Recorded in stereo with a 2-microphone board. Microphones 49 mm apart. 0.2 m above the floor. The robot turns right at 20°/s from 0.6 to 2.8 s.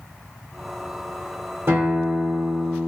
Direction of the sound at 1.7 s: 50° right (ahead or behind).